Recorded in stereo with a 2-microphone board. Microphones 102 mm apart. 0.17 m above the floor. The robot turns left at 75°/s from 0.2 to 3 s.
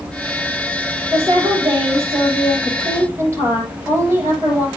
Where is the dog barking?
I don't hear a dog barking.